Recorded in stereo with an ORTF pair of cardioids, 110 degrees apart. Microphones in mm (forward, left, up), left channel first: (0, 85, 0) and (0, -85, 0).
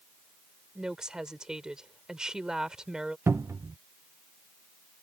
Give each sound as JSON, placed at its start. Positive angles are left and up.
{"t": 0.8, "sound": "a woman speaking", "azimuth_deg": -5}
{"t": 3.3, "sound": "a cupboard door", "azimuth_deg": -15}